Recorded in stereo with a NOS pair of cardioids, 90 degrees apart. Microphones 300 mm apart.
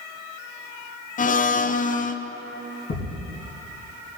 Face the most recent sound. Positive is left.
turn(degrees=55)